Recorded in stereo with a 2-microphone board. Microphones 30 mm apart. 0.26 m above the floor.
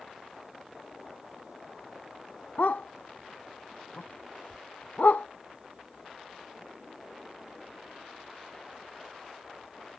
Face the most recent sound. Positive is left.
turn(degrees=70)  # may be behind; listen again after turning